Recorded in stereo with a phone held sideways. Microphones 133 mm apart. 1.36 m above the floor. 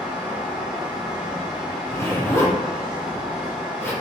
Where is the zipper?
15° left (ahead or behind), 1.2 m.